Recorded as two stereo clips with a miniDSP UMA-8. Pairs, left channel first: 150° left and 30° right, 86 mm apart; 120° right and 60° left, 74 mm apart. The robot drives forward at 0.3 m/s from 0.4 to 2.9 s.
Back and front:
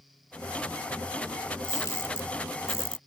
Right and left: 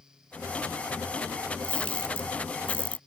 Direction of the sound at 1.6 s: 175° left.